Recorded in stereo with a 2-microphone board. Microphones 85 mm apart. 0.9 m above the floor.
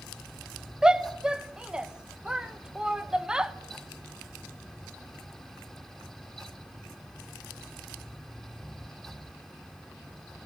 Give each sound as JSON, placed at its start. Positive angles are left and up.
{"t": 0.8, "sound": "a shout", "side_deg": -10, "distance_m": 0.8}